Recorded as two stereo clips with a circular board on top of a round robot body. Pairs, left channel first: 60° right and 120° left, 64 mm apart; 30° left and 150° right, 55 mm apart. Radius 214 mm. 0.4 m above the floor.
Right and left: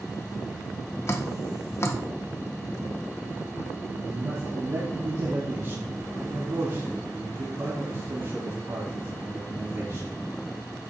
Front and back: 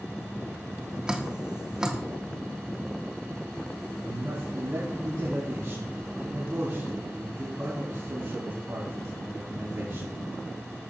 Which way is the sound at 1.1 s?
80° right.